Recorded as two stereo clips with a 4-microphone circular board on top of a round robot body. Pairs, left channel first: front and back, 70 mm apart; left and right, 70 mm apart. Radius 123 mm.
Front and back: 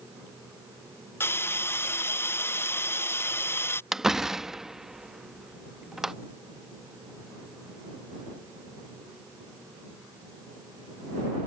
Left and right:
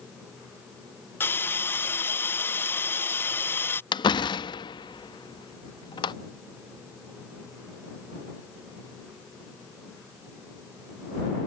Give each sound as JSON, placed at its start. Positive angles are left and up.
{"t": 1.2, "sound": "a hiss", "azimuth_deg": 45}
{"t": 3.9, "sound": "a door slam", "azimuth_deg": 95}